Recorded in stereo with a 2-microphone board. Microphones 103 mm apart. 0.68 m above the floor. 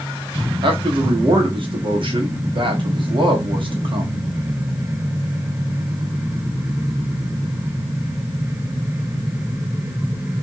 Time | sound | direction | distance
0.6 | a man speaking | 50° right (ahead or behind) | 1.1 m